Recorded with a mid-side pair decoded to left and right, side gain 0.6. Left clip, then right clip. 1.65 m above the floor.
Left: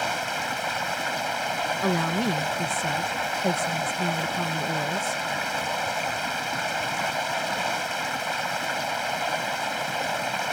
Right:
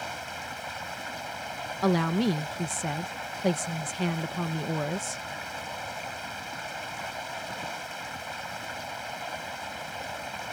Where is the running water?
45° left.